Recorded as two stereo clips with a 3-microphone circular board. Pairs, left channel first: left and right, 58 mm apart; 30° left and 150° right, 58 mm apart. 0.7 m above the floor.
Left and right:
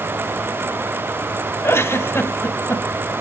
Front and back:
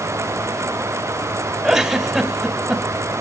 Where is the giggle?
125° left, 2.5 m.